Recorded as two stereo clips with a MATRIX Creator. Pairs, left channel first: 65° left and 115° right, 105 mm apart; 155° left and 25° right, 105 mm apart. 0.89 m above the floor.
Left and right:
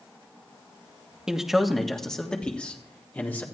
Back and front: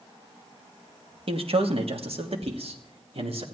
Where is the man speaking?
30° right, 1.4 m; by 3.4 s 5° right, 2.5 m.